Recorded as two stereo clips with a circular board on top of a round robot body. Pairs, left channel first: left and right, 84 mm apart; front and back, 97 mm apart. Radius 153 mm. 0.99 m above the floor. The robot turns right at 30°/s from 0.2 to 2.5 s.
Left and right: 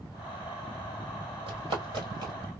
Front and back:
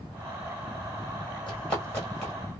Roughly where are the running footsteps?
Right.